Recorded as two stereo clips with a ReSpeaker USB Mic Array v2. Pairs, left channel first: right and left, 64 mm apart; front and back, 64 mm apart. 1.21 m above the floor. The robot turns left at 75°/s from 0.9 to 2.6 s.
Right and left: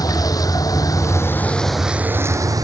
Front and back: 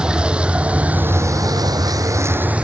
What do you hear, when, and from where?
0.0 s a vehicle: 105° right; by 2.6 s 110° left